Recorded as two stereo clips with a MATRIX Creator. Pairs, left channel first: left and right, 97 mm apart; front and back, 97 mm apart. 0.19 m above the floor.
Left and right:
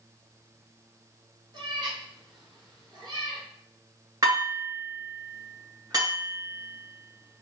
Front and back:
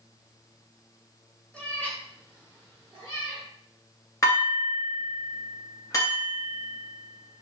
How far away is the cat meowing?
About 1.0 m.